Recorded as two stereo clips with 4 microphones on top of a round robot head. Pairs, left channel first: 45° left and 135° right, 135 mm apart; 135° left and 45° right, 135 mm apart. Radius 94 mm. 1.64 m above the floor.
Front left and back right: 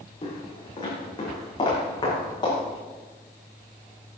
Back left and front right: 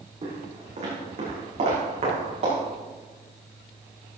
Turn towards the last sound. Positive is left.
turn(degrees=-10)